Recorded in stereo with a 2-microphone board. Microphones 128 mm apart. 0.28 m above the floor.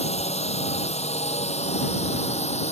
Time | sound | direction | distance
0.0 | a drone | 55° left (ahead or behind) | ?